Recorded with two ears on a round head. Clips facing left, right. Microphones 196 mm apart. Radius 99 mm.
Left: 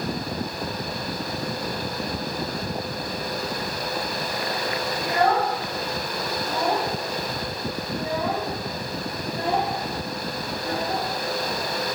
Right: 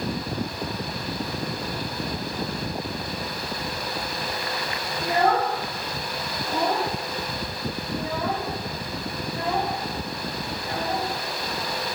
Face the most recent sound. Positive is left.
turn(degrees=60)  # may be behind; listen again after turning